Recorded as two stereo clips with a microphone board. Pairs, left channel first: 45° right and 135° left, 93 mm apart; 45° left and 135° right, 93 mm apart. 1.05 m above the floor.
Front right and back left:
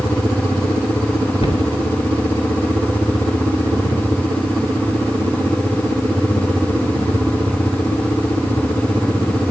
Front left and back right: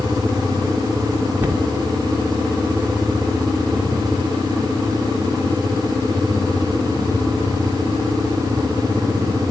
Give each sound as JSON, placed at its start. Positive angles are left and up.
{"t": 1.4, "sound": "a cupboard door", "azimuth_deg": -65, "distance_m": 3.0}